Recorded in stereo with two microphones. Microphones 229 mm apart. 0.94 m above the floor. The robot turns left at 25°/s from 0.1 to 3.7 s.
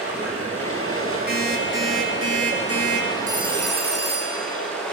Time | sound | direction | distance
0.0 | running water | 90° left | 6.5 m
1.3 | an alarm clock | 45° right | 7.5 m
3.3 | a phone ringing | 15° right (ahead or behind) | 4 m